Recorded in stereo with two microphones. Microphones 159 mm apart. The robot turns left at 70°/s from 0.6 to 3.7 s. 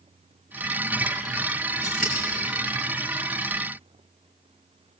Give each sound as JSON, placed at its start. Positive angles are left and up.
{"t": 1.8, "sound": "scissors", "side_deg": 50, "distance_m": 6.5}